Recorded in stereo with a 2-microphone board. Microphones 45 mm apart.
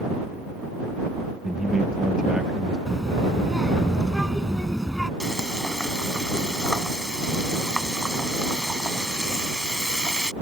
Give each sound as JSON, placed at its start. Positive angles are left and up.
{"t": 1.4, "sound": "a man speaking", "side_deg": -20}
{"t": 2.9, "sound": "a child speaking", "side_deg": 0}
{"t": 5.2, "sound": "frying", "side_deg": 15}